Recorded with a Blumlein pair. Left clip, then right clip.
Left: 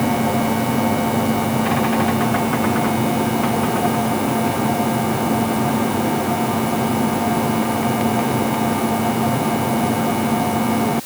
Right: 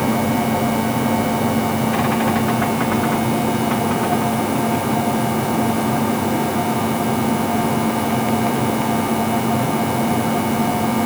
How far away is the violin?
No violin in this recording.